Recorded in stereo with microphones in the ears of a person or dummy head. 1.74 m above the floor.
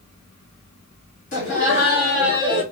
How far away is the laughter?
About 0.8 m.